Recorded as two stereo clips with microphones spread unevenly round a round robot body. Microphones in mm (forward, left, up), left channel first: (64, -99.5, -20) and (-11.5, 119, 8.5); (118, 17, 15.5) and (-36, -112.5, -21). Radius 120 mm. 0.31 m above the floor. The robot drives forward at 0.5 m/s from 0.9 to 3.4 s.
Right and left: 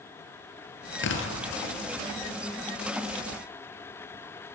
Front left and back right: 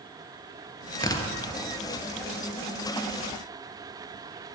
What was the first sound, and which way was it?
Tearing paper, 30° right.